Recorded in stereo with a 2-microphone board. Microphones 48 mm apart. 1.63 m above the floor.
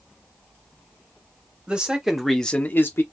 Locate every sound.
1.7 s a man speaking: 20° right (ahead or behind), 1.1 m; by 3.0 s 60° left (ahead or behind), 0.7 m